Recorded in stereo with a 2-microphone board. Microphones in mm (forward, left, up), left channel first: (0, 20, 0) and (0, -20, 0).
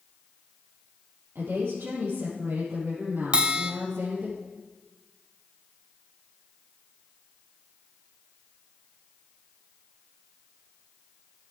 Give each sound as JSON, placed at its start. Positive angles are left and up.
{"t": 1.4, "sound": "a woman speaking", "side_deg": -70, "distance_m": 5.5}
{"t": 3.3, "sound": "a bell", "side_deg": -25, "distance_m": 0.7}